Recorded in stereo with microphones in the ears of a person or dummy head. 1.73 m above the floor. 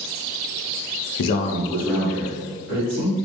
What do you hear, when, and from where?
1.2 s a man speaking: 65° left (ahead or behind), 0.6 m; by 3.2 s 20° right (ahead or behind), 2.5 m